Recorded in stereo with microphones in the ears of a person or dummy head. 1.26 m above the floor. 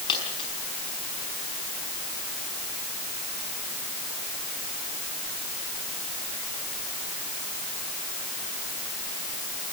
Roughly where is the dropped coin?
Left.